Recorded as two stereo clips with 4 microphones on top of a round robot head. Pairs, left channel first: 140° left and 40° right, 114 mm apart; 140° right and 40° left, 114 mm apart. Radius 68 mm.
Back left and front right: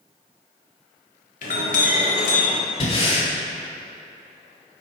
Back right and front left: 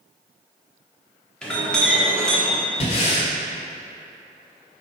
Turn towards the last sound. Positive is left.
turn(degrees=180)